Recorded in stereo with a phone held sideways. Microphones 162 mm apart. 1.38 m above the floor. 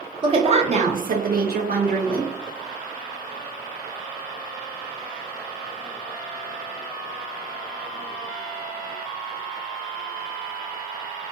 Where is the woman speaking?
30° right (ahead or behind), 0.8 m; by 2.3 s 70° right (ahead or behind), 1.0 m.